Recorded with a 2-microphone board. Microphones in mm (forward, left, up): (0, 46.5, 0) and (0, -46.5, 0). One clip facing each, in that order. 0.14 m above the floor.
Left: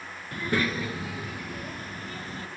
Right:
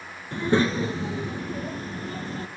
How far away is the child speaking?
About 1.1 m.